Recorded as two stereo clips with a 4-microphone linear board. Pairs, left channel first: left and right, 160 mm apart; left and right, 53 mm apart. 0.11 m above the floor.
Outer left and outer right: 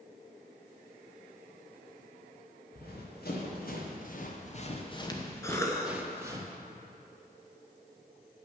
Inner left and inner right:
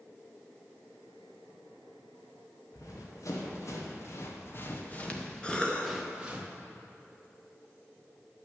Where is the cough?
20° left (ahead or behind), 1.3 m.